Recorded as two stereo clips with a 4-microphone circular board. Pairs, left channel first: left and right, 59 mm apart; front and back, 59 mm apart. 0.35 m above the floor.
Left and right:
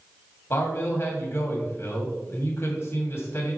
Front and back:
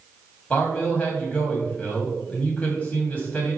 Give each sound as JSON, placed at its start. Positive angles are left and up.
{"t": 0.5, "sound": "a man speaking", "azimuth_deg": 60, "distance_m": 2.5}